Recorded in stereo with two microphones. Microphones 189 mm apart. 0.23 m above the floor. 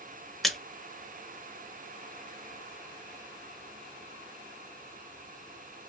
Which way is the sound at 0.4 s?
Centre (ahead or behind).